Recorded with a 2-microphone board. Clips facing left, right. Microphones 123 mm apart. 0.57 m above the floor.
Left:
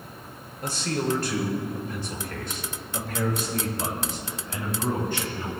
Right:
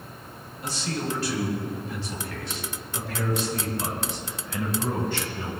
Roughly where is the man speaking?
Left.